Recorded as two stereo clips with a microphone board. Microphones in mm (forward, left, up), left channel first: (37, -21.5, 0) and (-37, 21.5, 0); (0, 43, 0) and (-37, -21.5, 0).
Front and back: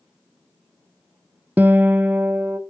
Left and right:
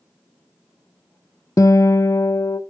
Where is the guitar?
85° left, 0.5 m.